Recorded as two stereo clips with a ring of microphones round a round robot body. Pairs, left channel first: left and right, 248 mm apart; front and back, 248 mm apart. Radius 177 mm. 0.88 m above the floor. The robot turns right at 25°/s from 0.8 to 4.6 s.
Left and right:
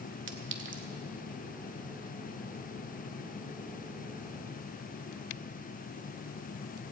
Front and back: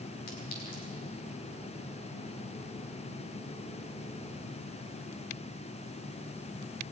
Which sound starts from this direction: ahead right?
A clink, at 0.3 s.